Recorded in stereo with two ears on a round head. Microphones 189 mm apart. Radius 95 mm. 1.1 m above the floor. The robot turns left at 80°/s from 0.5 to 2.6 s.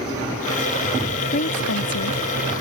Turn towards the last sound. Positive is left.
turn(degrees=30)